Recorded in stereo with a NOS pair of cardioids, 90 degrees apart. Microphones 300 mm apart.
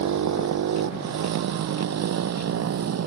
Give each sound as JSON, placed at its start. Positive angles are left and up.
{"t": 0.0, "sound": "a motorcycle", "azimuth_deg": -65}